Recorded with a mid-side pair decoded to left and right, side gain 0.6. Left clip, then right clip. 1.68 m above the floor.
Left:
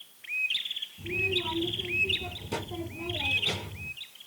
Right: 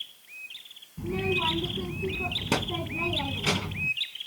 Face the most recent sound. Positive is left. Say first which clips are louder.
# right 2 dB
turn(degrees=-70)